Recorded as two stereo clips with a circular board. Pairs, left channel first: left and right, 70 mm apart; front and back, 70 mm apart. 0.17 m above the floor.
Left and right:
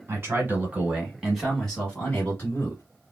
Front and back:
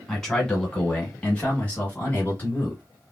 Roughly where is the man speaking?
Right.